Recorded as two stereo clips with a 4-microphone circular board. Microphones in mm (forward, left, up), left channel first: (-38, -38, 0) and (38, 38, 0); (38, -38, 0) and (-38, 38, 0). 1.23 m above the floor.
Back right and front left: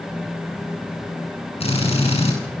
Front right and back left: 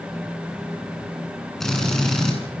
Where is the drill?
130° right, 7.5 m.